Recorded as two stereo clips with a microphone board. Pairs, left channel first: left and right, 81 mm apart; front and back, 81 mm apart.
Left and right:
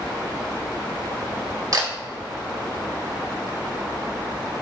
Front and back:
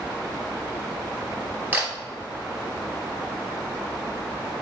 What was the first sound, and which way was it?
A camera shutter, 115° right.